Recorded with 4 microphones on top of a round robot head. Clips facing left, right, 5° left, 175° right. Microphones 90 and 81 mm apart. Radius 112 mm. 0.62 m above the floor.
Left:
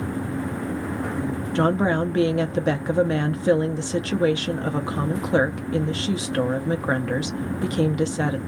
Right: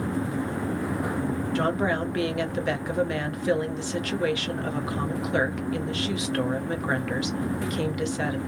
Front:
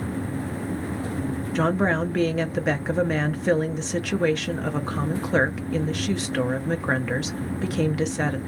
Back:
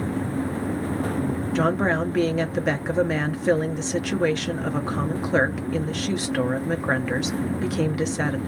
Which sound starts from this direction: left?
A woman speaking, at 1.6 s.